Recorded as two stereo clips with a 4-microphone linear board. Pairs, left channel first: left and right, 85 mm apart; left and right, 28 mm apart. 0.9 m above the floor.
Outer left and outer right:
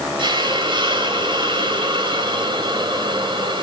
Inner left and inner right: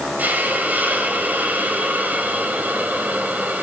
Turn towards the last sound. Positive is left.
turn(degrees=-80)